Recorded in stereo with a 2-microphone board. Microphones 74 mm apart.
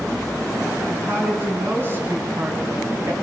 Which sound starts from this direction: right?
A woman speaking, at 0.9 s.